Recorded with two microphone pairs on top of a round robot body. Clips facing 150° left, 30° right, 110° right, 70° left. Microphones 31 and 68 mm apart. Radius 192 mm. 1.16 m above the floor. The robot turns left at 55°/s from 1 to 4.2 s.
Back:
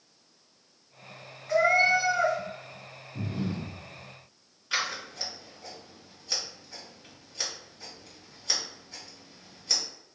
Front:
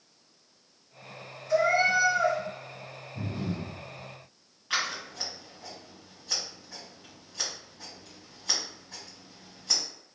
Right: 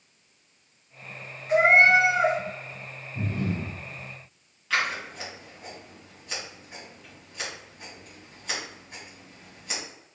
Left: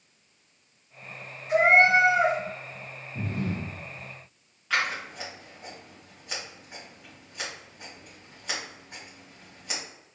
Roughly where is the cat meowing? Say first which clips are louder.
Back 1 dB, right 1 dB; behind.